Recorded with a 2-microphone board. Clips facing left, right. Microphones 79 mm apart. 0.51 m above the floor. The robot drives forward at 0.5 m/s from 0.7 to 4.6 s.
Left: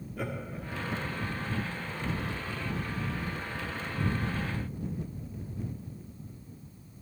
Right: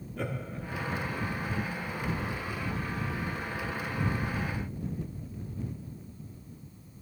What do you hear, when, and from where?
0.2 s laughter: 5° left (ahead or behind), 0.8 m